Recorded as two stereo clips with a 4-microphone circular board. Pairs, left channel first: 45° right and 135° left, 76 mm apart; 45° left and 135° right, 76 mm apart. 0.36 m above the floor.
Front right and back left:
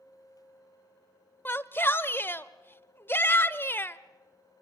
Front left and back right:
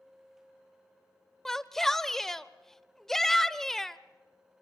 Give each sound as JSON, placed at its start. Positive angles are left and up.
{"t": 1.4, "sound": "a shout", "azimuth_deg": -35, "distance_m": 0.9}